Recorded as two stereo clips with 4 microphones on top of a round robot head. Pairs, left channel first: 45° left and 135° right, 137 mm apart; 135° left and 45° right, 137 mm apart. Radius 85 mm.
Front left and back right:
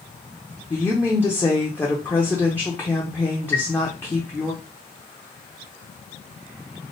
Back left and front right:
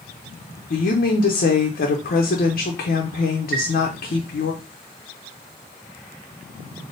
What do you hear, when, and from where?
0.7 s a woman speaking: 120° left, 0.7 m
3.5 s a chime: 30° right, 0.8 m